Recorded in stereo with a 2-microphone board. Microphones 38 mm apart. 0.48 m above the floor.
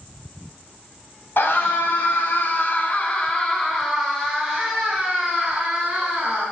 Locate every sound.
1.4 s a scream: 70° left (ahead or behind), 3 m; by 6.4 s 25° right (ahead or behind), 5.5 m